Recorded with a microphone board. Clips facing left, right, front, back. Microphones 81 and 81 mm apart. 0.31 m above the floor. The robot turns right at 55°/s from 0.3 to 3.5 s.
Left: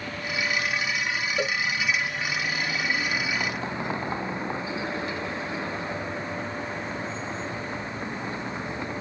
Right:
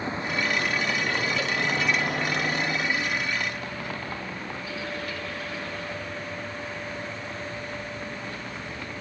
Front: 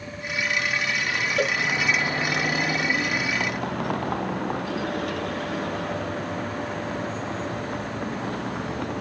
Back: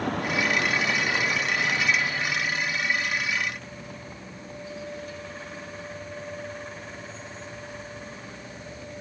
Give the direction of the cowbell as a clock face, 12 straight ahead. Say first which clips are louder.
Left 1 dB, front 4 dB; 11 o'clock.